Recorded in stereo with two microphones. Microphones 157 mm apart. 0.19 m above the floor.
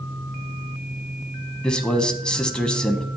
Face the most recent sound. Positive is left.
turn(degrees=5)  # may be behind; listen again after turning